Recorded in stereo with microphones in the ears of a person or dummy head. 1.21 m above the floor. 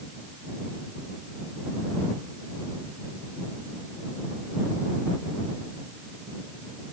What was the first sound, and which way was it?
Only background noise.